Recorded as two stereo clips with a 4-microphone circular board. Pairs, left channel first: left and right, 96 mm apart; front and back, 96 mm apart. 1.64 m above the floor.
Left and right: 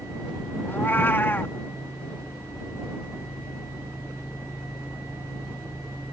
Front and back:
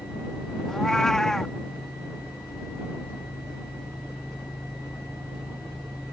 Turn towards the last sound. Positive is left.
turn(degrees=80)